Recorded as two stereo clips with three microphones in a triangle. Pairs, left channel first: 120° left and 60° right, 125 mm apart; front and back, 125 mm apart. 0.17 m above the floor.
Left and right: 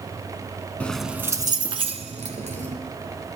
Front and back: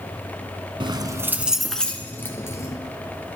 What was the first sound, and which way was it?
Keys jangling, 170° right.